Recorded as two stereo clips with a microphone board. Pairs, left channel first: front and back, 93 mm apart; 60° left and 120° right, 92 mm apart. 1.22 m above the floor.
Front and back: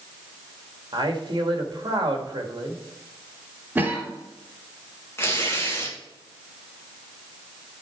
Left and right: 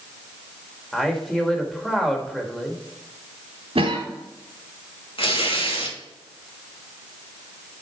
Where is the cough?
110° right, 2.5 m.